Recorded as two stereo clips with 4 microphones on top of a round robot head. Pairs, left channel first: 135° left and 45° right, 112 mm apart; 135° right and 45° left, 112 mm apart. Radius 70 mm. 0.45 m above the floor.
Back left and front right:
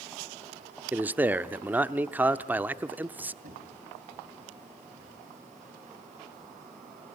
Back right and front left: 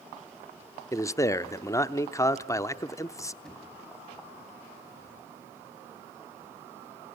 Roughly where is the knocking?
Ahead right.